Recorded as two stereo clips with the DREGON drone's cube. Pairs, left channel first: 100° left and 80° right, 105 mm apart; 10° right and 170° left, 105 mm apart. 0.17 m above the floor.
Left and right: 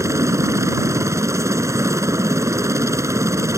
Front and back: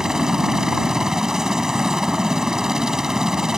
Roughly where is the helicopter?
Right.